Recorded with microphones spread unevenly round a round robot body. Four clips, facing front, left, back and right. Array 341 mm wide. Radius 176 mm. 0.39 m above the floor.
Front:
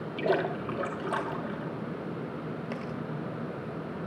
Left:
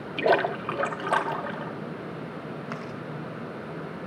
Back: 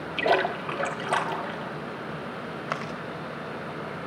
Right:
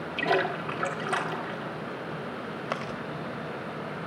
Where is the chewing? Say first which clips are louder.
Right 2 dB, back 3 dB; 115° right, 1.9 m.